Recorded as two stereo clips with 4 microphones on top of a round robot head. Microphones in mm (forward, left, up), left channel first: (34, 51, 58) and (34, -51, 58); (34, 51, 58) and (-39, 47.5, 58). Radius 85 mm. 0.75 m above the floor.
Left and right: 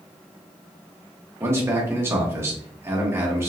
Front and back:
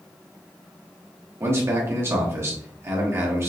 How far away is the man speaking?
About 1.3 m.